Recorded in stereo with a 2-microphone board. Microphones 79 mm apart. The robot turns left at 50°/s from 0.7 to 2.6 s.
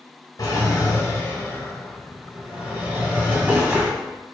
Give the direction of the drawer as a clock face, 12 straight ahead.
10 o'clock.